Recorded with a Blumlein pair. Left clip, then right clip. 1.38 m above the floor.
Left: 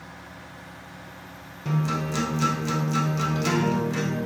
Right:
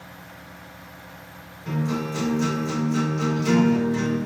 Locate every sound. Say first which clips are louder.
1.6 s a guitar: even; 50° left, 1.0 m